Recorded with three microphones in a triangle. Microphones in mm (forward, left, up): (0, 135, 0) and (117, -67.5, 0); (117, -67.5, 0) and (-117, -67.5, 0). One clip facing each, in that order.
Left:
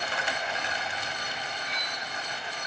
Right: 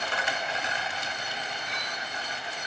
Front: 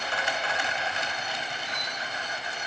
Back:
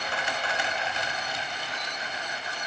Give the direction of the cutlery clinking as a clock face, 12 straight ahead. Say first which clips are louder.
Right 1 dB, even; 1 o'clock.